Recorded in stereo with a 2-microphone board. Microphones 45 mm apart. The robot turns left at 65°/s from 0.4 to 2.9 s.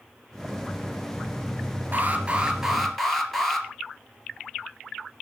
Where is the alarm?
120° right, 3 m; by 3.7 s 175° left, 3 m.